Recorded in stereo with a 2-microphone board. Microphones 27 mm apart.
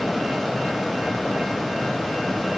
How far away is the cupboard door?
I don't hear a cupboard door.